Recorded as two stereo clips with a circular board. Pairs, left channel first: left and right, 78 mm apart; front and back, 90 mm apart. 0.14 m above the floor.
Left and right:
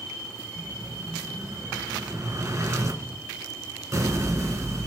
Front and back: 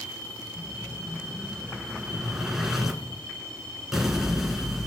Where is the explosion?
95° right, 1.5 m.